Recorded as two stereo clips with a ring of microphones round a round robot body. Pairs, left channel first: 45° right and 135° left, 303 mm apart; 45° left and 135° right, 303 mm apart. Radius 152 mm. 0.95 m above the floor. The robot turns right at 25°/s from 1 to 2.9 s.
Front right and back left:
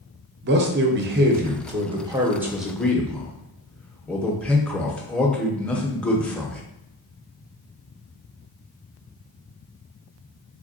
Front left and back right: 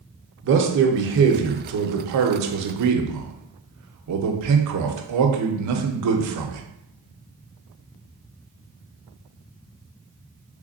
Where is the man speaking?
Straight behind, 0.7 m; by 6.6 s 130° right, 0.7 m.